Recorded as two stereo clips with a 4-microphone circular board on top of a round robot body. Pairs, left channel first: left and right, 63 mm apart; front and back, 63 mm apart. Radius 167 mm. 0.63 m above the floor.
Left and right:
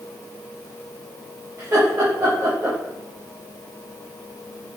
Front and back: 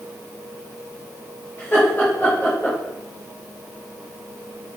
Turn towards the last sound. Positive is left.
turn(degrees=-55)